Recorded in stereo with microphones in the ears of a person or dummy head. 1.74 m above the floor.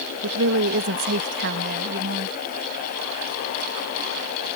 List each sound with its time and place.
0.2 s a woman speaking: 70° right (ahead or behind); by 2.4 s 50° right (ahead or behind)